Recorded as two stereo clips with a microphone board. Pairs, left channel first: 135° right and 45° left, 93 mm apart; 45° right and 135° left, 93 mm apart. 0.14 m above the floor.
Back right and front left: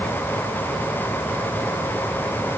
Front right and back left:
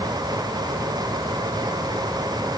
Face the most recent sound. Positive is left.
No sound to turn to.